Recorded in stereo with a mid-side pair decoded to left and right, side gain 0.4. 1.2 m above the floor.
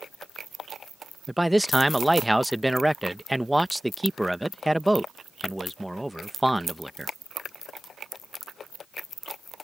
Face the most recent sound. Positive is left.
turn(degrees=-5)